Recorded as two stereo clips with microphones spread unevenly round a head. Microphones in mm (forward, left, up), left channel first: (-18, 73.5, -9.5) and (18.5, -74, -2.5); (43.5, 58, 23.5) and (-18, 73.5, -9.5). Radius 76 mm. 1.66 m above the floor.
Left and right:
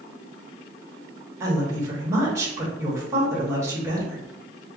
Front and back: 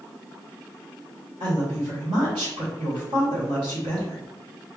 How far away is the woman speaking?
About 1.3 m.